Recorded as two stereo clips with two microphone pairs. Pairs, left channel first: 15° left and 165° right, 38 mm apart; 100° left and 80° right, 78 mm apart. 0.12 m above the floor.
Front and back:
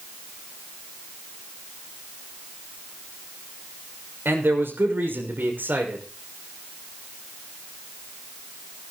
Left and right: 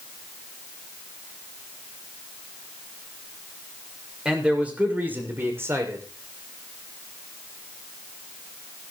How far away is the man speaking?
About 6.5 m.